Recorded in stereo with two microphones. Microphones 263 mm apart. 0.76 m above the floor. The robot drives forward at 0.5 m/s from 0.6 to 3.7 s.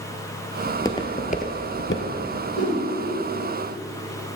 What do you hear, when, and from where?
0.7 s footsteps: 5° left (ahead or behind), 0.9 m; by 2.1 s 50° left (ahead or behind), 1.1 m
2.5 s a whoosh: 60° left (ahead or behind), 2.5 m; by 2.8 s 55° left (ahead or behind), 2.5 m